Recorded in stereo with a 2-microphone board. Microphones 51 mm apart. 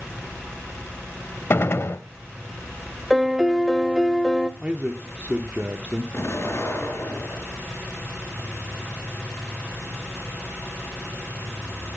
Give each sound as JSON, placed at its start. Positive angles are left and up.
{"t": 1.5, "sound": "a gunshot", "side_deg": 50, "distance_m": 0.7}
{"t": 3.1, "sound": "a piano", "side_deg": 0, "distance_m": 0.7}
{"t": 4.6, "sound": "a man speaking", "side_deg": -30, "distance_m": 0.9}
{"t": 6.1, "sound": "an explosion", "side_deg": 50, "distance_m": 5.0}